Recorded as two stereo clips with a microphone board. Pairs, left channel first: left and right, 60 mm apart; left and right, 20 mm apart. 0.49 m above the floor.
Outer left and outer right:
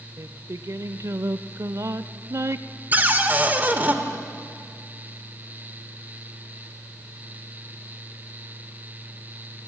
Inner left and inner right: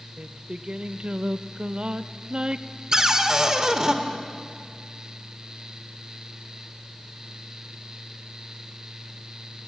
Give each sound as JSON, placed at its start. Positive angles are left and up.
{"t": 0.2, "sound": "singing", "side_deg": -50, "distance_m": 0.6}
{"t": 2.9, "sound": "a cupboard door", "side_deg": -30, "distance_m": 1.4}